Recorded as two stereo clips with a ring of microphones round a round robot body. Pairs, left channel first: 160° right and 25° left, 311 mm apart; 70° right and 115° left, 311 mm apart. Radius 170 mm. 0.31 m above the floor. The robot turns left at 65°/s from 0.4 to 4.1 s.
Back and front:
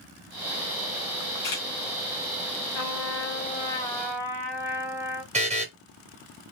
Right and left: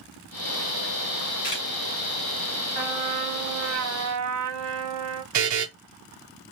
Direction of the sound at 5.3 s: 90° left.